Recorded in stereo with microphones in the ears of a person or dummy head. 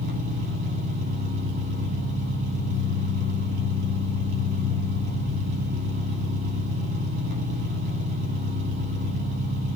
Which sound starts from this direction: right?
An engine running, at 0.0 s.